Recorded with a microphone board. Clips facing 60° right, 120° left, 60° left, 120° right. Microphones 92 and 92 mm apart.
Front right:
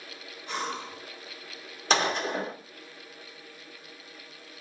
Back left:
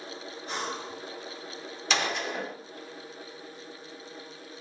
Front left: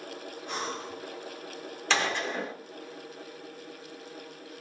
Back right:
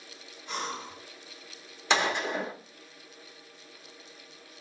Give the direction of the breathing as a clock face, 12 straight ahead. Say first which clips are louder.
Front right 1 dB, even; 10 o'clock.